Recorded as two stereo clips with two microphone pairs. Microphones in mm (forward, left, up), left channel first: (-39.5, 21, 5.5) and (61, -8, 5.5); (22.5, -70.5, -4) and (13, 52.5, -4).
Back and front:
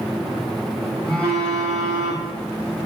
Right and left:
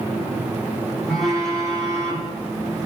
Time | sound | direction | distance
1.1 | a phone buzzing | straight ahead | 2 m